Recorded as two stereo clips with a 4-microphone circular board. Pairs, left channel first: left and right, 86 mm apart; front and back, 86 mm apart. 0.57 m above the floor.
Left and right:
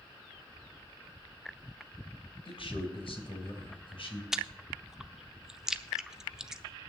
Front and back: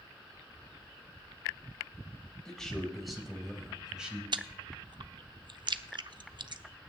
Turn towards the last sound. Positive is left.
turn(degrees=-170)